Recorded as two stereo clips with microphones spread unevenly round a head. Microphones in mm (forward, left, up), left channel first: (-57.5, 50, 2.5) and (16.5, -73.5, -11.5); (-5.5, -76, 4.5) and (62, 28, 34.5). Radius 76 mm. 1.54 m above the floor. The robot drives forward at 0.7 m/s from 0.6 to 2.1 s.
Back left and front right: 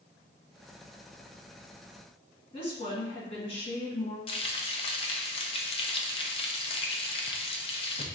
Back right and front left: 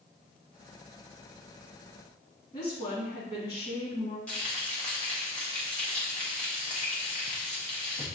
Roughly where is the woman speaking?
Behind.